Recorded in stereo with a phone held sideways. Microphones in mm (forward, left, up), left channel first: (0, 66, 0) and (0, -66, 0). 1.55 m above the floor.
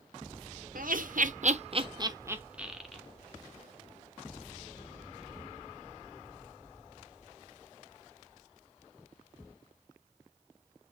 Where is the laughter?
80° right, 0.8 m; by 3.0 s 5° left (ahead or behind), 1.0 m.